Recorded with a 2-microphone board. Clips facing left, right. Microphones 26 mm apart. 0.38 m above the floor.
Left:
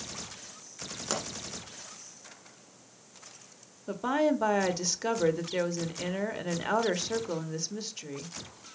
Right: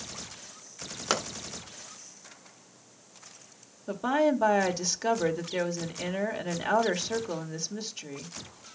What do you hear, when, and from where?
1.1 s a pop: 40° right (ahead or behind), 1.7 m
3.9 s a woman speaking: 5° right (ahead or behind), 1.1 m